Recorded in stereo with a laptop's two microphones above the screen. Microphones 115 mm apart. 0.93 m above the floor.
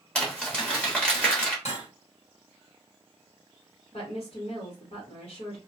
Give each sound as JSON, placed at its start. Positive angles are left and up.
{"t": 0.1, "sound": "crumpling", "side_deg": 10, "distance_m": 1.2}
{"t": 1.6, "sound": "cutlery clinking", "side_deg": 75, "distance_m": 1.9}
{"t": 3.9, "sound": "a woman speaking", "side_deg": 55, "distance_m": 1.3}